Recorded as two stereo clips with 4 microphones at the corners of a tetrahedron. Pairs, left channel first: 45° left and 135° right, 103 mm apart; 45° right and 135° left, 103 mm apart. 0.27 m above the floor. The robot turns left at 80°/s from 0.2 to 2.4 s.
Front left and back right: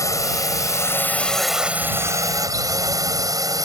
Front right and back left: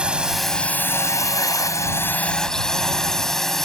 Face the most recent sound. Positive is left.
turn(degrees=-130)